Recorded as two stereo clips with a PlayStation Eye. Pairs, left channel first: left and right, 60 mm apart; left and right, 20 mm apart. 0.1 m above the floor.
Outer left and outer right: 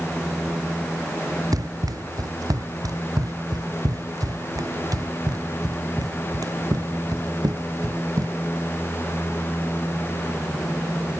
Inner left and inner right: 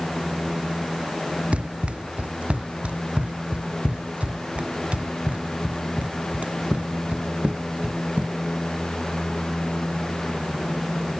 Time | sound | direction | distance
1.5 | running footsteps | 90° right | ?